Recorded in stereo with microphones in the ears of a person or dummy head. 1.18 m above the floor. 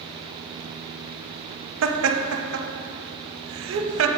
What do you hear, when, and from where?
1.8 s laughter: 70° right (ahead or behind), 0.7 m